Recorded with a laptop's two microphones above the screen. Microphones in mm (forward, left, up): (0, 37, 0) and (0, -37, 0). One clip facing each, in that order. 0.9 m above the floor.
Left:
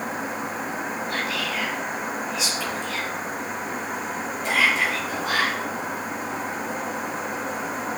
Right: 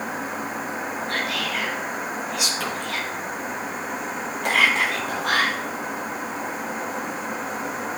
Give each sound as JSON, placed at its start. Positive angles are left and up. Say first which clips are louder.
{"t": 1.1, "sound": "whispering", "louder": "right 2 dB", "side_deg": -55, "distance_m": 1.1}